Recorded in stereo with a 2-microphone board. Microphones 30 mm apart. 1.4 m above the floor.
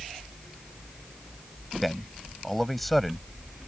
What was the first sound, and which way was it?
A man speaking, centre (ahead or behind).